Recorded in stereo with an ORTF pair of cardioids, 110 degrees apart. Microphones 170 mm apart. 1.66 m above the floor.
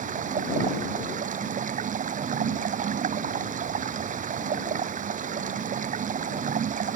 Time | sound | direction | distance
0.0 | running water | 50° right | ?